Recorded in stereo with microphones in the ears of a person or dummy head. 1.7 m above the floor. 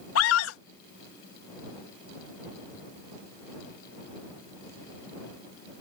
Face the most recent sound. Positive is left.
turn(degrees=90)